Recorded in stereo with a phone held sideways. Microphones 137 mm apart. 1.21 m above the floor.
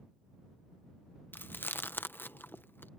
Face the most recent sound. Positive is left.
turn(degrees=15)  # may be behind; listen again after turning